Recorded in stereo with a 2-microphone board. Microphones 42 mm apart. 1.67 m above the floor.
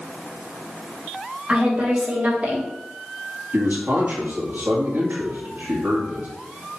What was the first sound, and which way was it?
A woman speaking, 30° right (ahead or behind).